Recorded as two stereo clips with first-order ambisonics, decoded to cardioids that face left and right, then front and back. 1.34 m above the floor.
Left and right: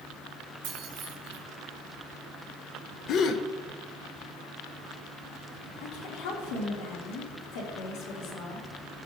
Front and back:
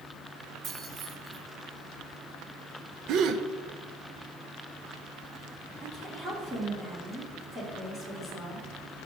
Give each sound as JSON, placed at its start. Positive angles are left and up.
{"t": 0.6, "sound": "keys jangling", "azimuth_deg": -125, "distance_m": 2.5}
{"t": 3.1, "sound": "a gasp", "azimuth_deg": 140, "distance_m": 0.7}
{"t": 5.8, "sound": "a woman speaking", "azimuth_deg": 100, "distance_m": 3.0}